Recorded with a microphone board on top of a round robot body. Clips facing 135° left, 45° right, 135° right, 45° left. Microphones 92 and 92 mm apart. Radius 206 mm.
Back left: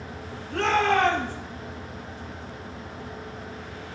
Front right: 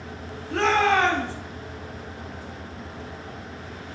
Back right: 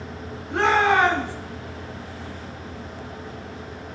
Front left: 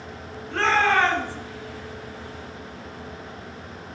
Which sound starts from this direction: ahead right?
A shout, at 0.5 s.